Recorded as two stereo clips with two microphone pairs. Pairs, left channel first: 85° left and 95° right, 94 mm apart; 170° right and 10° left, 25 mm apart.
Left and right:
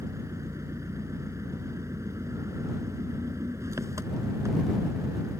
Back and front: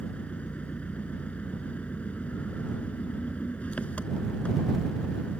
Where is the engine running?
150° right.